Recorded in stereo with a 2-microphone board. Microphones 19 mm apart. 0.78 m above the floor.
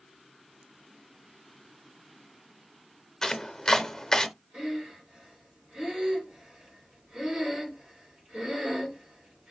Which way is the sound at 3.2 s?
30° left (ahead or behind).